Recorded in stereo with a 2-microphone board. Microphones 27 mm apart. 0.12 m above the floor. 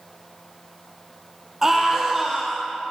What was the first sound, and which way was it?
A scream, 20° right (ahead or behind).